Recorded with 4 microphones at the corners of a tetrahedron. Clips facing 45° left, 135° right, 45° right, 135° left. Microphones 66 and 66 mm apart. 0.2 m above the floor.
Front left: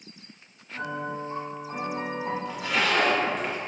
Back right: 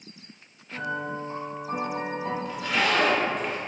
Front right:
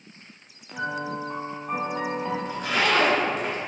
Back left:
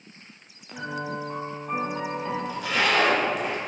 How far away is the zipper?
About 1.4 m.